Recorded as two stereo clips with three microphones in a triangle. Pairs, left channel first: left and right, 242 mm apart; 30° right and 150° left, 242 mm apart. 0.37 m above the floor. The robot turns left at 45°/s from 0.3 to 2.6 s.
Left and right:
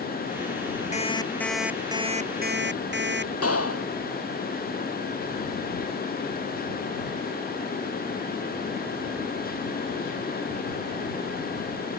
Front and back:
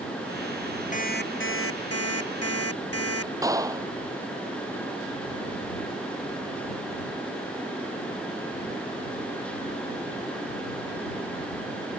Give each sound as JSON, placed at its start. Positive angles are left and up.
{"t": 0.9, "sound": "an alarm clock", "azimuth_deg": 30}
{"t": 3.4, "sound": "a clap", "azimuth_deg": 75}